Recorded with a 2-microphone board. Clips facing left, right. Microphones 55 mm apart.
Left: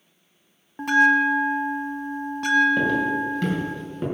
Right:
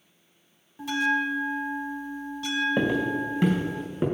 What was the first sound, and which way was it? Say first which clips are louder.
A bell: left 8 dB; 55° left (ahead or behind).